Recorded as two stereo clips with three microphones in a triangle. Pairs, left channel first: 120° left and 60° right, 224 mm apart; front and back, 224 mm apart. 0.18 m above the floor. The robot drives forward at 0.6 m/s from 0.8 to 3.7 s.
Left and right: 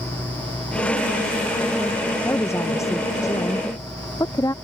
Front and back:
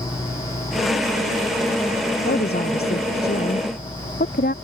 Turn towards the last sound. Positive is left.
turn(degrees=45)